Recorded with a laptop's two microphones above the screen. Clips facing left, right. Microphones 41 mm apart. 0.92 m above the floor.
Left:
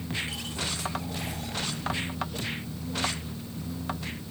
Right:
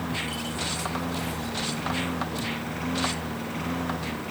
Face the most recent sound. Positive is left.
turn(degrees=-60)  # may be behind; listen again after turning